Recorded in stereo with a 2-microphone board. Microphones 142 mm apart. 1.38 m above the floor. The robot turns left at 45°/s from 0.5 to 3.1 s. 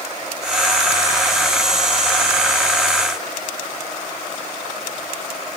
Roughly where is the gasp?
I don't hear a gasp.